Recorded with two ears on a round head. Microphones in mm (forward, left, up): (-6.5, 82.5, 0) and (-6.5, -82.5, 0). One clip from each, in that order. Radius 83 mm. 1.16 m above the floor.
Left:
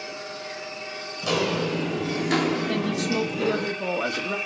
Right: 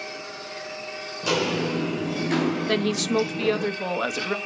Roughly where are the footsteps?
Centre.